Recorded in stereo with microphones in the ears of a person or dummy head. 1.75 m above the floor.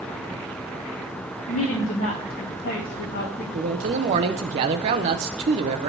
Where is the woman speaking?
40° left (ahead or behind), 1.3 m; by 3.4 s 50° left (ahead or behind), 2.5 m.